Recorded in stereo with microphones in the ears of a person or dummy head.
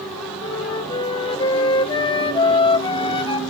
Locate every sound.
0.4 s a flute: 30° left (ahead or behind), 0.9 m